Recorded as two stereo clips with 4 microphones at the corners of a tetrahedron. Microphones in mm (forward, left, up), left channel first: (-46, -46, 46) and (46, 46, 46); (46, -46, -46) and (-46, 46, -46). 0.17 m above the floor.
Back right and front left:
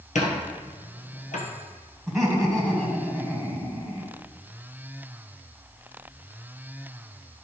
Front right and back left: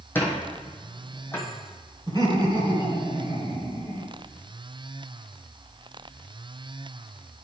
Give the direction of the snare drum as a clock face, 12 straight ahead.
I don't hear a snare drum.